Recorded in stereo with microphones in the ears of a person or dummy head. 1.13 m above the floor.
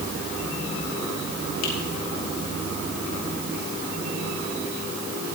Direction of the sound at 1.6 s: 80° left.